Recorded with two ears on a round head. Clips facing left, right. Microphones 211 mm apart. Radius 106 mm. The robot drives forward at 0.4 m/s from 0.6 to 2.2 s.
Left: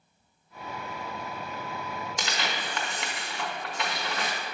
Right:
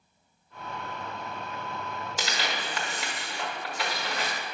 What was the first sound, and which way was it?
Tearing paper, 5° right (ahead or behind).